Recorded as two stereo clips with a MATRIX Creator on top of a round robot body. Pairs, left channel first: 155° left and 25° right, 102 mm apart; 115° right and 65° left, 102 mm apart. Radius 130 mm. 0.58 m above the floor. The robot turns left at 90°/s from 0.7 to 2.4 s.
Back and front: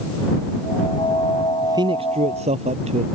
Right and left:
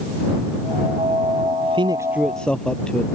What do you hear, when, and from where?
1.6 s a man speaking: 40° left; by 3.0 s 30° right